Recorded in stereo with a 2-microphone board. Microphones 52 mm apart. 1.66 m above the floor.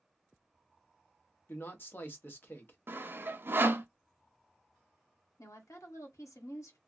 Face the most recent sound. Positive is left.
turn(degrees=80)